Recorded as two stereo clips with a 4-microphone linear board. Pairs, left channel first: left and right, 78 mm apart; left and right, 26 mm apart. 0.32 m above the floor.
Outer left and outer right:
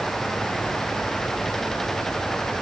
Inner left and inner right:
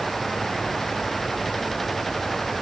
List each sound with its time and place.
Only background noise.